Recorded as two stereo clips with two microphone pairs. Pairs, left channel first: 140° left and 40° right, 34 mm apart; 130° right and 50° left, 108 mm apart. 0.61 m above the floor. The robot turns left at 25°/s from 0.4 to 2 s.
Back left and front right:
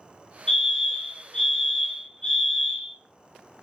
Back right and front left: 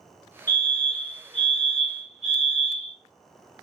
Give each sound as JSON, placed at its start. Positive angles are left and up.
{"t": 0.5, "sound": "a fire alarm", "azimuth_deg": -170, "distance_m": 1.7}